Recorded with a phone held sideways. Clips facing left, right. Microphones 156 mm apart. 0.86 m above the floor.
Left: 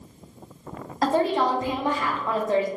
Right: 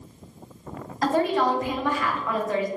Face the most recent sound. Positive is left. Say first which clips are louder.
# even
turn(degrees=30)  # may be behind; listen again after turning